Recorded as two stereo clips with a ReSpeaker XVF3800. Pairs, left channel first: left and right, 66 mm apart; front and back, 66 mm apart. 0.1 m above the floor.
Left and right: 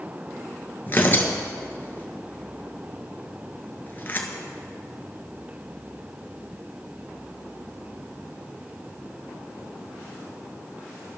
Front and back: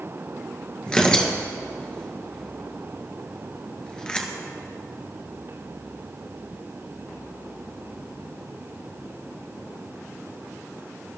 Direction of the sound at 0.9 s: 65° left.